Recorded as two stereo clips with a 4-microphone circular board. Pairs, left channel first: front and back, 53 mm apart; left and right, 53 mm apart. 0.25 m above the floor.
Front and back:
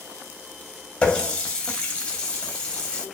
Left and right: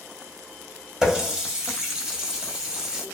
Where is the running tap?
30° right, 0.6 m.